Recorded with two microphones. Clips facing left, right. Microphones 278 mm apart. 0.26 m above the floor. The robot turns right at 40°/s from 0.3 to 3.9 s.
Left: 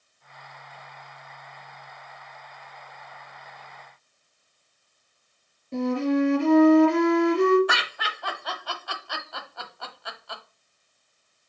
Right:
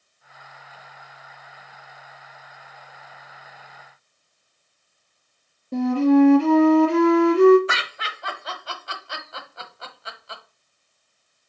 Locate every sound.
5.7 s a flute: 35° right (ahead or behind), 3 m
7.7 s laughter: 25° right (ahead or behind), 1.1 m